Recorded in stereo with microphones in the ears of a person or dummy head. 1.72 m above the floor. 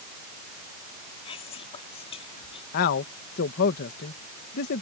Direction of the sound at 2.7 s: 55° left (ahead or behind).